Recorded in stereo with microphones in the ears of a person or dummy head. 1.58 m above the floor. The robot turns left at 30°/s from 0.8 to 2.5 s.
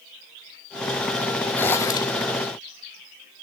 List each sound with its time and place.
1.6 s a zipper: 10° left (ahead or behind), 0.7 m; by 2.2 s 30° left (ahead or behind), 0.7 m